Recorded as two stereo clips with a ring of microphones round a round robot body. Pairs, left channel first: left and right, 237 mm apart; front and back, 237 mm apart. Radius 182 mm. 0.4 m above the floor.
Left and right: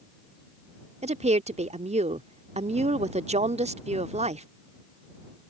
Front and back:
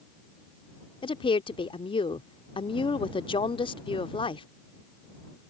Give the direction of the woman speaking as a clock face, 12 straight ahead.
2 o'clock.